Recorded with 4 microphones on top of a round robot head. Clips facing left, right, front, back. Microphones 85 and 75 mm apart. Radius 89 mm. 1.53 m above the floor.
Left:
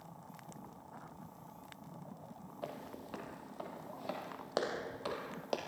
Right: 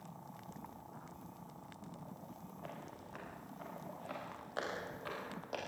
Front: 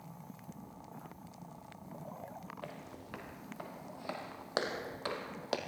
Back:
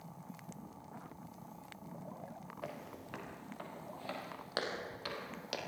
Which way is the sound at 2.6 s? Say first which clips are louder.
Left 6 dB, back 1 dB; 95° left.